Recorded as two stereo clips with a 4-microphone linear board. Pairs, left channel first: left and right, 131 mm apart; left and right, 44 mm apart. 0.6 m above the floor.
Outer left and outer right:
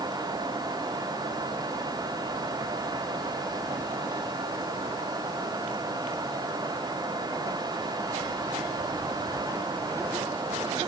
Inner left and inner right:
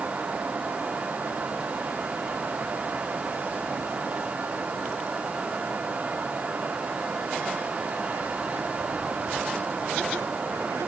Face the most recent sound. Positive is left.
No sound to turn to.